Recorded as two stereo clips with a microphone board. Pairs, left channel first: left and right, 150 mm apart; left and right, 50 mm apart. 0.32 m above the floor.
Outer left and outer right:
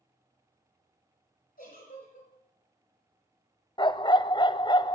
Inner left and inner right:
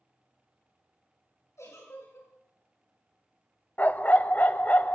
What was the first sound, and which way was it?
A giggle, 75° left (ahead or behind).